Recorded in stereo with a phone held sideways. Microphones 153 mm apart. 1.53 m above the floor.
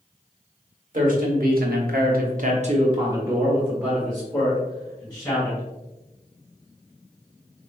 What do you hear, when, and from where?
0.9 s a man speaking: 65° right (ahead or behind), 1.4 m; by 5.6 s 10° left (ahead or behind), 2.5 m